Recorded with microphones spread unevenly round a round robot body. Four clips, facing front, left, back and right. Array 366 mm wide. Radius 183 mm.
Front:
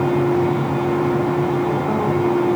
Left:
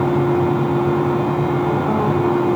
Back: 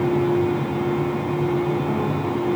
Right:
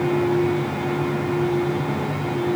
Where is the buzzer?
No buzzer in this recording.